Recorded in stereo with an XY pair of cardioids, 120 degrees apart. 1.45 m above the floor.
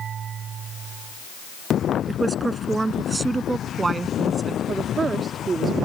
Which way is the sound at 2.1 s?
20° right.